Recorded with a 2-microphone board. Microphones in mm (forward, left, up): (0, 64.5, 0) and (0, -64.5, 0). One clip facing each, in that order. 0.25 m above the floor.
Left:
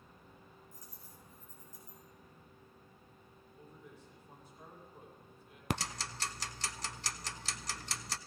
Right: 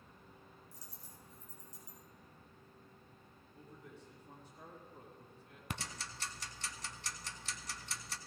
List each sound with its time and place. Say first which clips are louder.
0.7 s a dropped coin: left 1 dB; 80° right, 3 m
3.5 s a man speaking: right 1 dB; 70° right (ahead or behind), 7 m
5.7 s ticking: left 8 dB; 75° left (ahead or behind), 0.5 m